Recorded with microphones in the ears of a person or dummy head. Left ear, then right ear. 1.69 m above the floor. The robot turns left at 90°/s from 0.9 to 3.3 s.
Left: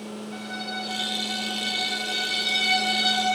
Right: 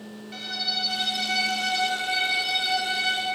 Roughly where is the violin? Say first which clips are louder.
Right 6 dB; ahead right.